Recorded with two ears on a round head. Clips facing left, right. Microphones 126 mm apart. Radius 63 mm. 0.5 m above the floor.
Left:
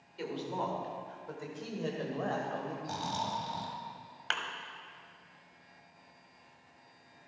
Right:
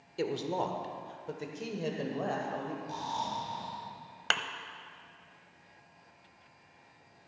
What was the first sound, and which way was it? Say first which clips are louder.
A woman speaking: right 4 dB; 50° right (ahead or behind).